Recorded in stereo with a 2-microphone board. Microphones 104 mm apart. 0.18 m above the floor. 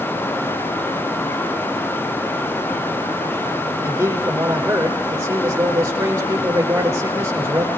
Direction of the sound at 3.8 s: 25° right (ahead or behind).